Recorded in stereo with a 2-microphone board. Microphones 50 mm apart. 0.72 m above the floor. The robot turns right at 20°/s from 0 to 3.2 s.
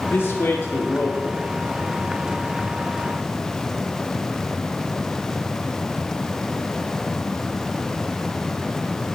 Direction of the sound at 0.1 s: 50° left (ahead or behind).